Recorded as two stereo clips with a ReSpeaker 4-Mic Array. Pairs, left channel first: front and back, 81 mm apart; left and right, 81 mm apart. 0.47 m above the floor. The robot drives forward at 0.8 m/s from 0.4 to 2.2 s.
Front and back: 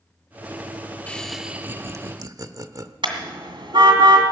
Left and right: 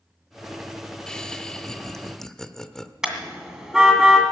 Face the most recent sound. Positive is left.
turn(degrees=-175)